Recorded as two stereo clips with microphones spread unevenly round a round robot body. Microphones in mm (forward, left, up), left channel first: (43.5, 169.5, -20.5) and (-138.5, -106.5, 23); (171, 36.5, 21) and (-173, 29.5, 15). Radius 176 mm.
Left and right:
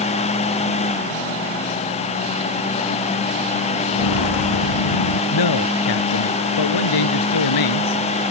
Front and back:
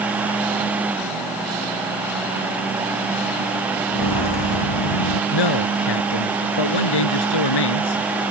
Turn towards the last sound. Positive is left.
turn(degrees=20)